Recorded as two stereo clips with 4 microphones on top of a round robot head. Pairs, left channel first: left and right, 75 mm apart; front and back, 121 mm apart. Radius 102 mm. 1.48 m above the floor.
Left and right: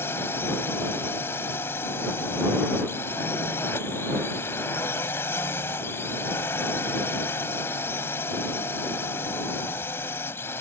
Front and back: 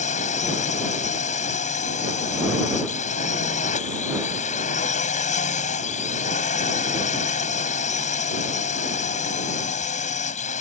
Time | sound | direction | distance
0.0 | a drone | 20° left | ?